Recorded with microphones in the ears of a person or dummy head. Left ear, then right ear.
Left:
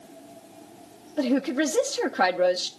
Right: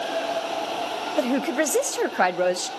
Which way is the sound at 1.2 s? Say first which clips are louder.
Right 1 dB; 55° right (ahead or behind).